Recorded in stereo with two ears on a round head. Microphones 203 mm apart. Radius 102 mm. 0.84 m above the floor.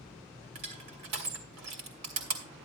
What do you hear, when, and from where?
0.6 s crushing: 85° right, 2.5 m